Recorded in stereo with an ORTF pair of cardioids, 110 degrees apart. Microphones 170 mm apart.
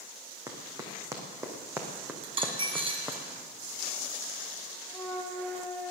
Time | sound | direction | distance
0.5 | running footsteps | 20° right | 3.5 m
2.2 | a dropped coin | 35° right | 3 m
4.9 | a flute | 10° left | 6 m